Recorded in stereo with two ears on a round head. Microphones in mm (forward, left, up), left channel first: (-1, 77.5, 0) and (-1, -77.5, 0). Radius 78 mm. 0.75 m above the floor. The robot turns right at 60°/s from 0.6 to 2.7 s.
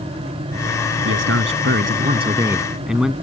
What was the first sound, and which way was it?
A man speaking, 100° right.